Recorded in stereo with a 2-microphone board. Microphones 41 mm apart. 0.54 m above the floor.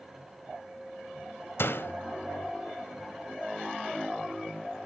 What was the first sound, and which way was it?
A door slam, 75° left (ahead or behind).